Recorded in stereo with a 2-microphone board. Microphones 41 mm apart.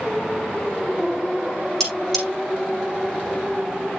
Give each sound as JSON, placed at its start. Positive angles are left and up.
{"t": 1.8, "sound": "cutlery clinking", "side_deg": 5, "distance_m": 7.5}